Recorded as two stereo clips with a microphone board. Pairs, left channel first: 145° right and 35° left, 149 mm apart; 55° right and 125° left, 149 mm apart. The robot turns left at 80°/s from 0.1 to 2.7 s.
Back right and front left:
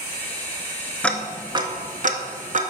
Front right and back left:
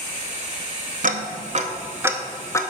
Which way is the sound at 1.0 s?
135° left.